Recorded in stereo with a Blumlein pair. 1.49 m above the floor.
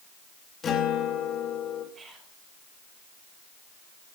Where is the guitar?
20° left, 3 m.